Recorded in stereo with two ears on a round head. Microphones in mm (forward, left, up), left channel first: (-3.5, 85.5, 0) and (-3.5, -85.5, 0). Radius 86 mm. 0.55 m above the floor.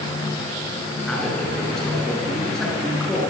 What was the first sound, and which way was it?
A man speaking, 5° left (ahead or behind).